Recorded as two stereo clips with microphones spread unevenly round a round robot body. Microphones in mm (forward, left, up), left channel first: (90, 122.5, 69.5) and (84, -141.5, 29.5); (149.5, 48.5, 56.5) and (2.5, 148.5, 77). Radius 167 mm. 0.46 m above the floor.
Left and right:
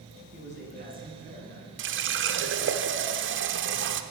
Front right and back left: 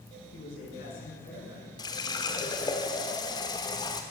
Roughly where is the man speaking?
Ahead right.